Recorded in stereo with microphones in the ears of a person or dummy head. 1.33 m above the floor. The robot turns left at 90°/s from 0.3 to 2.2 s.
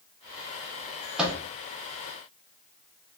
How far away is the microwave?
About 0.8 m.